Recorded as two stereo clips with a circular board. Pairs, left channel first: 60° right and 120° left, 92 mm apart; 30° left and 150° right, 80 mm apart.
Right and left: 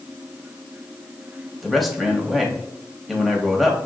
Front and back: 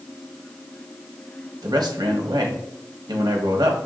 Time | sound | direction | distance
1.6 | a man speaking | 150° right | 1.0 m